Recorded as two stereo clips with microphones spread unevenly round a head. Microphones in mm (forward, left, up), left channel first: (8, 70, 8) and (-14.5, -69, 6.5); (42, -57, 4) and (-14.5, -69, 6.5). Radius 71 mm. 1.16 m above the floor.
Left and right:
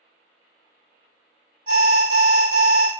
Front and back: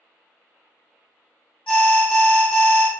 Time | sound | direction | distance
1.7 | an alarm | 55° right | 1.5 m